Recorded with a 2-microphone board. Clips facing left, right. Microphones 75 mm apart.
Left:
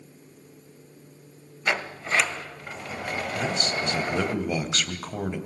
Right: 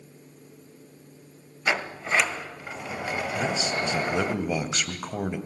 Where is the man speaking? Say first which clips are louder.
Even; 10° right (ahead or behind), 2 m.